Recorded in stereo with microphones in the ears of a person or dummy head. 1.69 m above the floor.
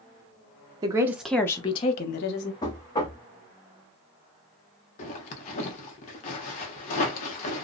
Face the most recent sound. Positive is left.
turn(degrees=35)  # may be behind; listen again after turning